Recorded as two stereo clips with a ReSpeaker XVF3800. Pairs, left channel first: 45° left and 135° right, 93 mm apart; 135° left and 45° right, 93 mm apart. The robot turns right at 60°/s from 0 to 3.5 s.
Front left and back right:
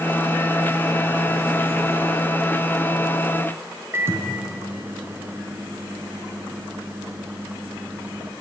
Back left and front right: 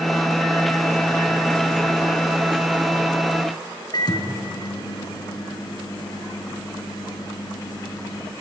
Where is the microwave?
165° left, 2.5 m.